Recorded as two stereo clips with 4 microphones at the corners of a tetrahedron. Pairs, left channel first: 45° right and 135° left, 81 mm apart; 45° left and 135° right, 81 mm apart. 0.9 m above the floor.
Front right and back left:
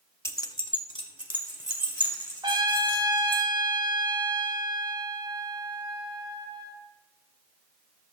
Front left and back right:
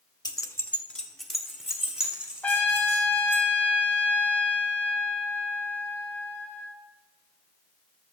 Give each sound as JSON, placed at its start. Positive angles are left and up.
{"t": 0.2, "sound": "keys jangling", "azimuth_deg": 15, "distance_m": 0.6}
{"t": 2.4, "sound": "a trumpet", "azimuth_deg": 120, "distance_m": 1.6}